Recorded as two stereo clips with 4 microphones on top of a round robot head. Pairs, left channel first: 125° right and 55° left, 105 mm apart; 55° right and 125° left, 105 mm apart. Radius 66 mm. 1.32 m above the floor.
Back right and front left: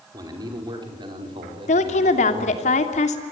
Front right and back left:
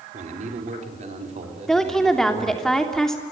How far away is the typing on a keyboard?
I don't hear typing on a keyboard.